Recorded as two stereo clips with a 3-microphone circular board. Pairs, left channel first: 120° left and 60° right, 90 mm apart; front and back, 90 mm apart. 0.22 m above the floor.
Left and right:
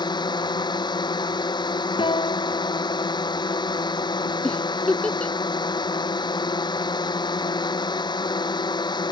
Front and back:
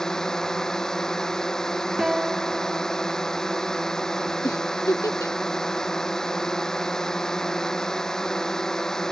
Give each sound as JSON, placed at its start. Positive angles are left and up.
{"t": 0.0, "sound": "a drone", "azimuth_deg": 85}
{"t": 2.0, "sound": "a guitar", "azimuth_deg": 95}
{"t": 4.4, "sound": "a giggle", "azimuth_deg": 45}